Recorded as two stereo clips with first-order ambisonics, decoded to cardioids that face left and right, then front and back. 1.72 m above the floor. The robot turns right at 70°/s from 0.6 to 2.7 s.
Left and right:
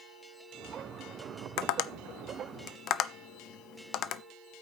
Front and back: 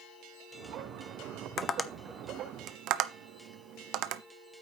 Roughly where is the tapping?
Ahead left.